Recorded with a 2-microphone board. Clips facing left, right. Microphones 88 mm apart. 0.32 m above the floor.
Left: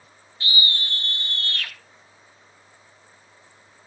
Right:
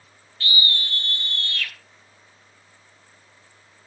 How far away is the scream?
About 1.2 m.